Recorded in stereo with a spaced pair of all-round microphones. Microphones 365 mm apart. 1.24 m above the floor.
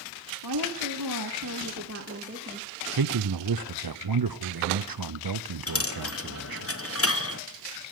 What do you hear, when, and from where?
0.4 s a woman speaking: 85° right, 1.7 m; by 2.7 s 20° right (ahead or behind), 2 m
3.0 s a man speaking: 70° right (ahead or behind), 0.6 m
5.7 s a dropped coin: 40° left (ahead or behind), 0.8 m